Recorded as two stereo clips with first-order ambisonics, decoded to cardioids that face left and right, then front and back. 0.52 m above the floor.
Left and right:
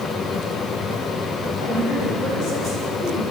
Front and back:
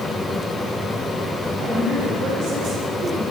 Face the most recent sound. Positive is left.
turn(degrees=170)